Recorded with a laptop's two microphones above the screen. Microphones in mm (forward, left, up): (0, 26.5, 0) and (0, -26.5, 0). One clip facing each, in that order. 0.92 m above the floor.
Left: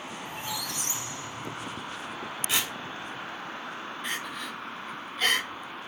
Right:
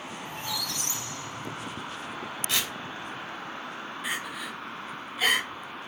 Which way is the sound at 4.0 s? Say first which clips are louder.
Right 2 dB; 5° right (ahead or behind).